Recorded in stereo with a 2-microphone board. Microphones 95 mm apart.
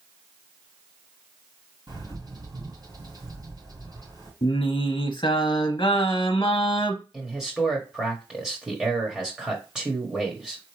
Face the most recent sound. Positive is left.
turn(degrees=-10)  # may be behind; listen again after turning